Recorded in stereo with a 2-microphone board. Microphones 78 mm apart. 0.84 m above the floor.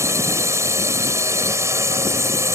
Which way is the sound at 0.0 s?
40° right (ahead or behind).